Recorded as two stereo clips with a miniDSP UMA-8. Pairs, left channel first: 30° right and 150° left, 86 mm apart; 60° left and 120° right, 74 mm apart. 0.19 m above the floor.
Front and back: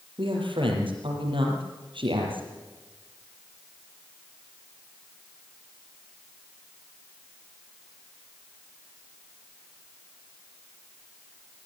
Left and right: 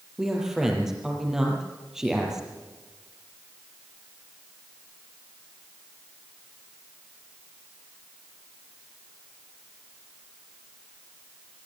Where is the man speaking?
155° left, 6 m.